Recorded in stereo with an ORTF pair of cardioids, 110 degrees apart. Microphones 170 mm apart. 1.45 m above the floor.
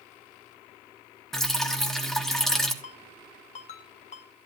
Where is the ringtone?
45° left, 1.6 m.